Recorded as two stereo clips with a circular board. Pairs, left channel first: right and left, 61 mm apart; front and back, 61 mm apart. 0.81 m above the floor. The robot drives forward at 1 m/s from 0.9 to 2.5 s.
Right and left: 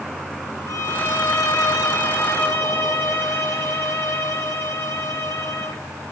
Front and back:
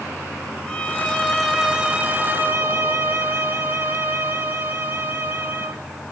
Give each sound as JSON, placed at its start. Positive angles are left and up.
{"t": 0.7, "sound": "a violin", "azimuth_deg": -70, "distance_m": 1.6}